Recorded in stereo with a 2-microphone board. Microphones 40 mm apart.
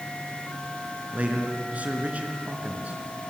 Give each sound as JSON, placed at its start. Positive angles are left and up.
{"t": 1.1, "sound": "a man speaking", "side_deg": -35, "distance_m": 4.0}